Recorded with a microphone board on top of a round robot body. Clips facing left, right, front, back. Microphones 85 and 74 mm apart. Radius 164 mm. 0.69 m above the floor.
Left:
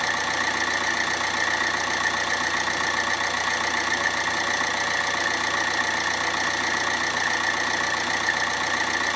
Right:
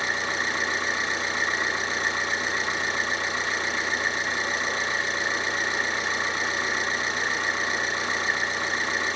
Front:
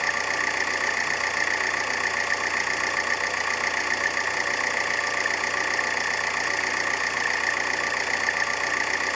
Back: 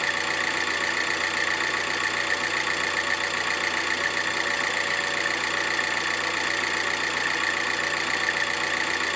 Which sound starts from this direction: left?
An engine running, at 0.0 s.